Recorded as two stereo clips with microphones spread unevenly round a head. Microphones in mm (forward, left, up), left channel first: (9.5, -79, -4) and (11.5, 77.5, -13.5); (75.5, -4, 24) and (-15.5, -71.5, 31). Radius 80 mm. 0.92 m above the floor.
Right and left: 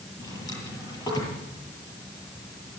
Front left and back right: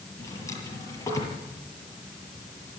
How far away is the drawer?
About 8.5 m.